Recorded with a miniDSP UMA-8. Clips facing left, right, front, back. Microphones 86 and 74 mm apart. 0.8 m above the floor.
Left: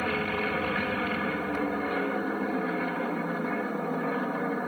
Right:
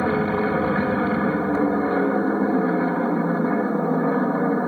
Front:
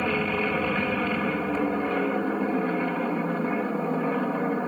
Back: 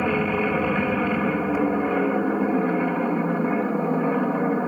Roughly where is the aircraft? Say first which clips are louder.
Right 8 dB, back 3 dB; right.